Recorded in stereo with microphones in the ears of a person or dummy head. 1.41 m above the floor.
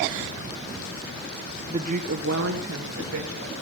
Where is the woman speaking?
20° right (ahead or behind), 0.8 m; by 3.5 s 85° right, 3 m.